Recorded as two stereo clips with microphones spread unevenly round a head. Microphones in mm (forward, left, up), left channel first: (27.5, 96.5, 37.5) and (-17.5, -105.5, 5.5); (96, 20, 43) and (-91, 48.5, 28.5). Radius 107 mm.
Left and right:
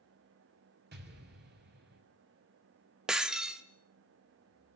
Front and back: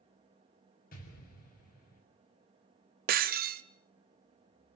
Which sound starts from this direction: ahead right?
An explosion, at 0.9 s.